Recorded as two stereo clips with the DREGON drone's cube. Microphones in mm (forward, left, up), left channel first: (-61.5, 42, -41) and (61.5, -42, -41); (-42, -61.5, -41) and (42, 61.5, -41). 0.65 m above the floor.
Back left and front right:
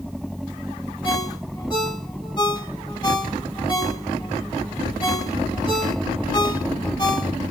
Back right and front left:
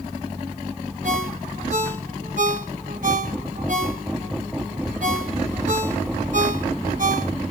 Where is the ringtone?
85° left, 2.5 m.